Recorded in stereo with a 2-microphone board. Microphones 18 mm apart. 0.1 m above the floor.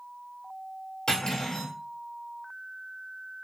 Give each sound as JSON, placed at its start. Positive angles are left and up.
{"t": 1.1, "sound": "cutlery clinking", "side_deg": 55, "distance_m": 1.6}